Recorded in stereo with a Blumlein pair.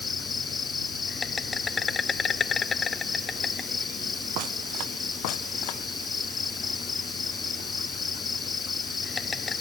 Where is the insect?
15° left.